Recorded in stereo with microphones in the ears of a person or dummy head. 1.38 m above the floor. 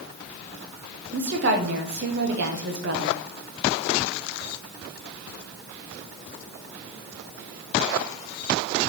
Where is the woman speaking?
60° right (ahead or behind), 1.2 m.